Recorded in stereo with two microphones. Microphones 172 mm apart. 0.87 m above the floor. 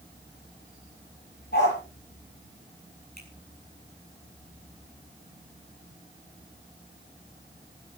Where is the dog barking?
75° left (ahead or behind), 9.5 m.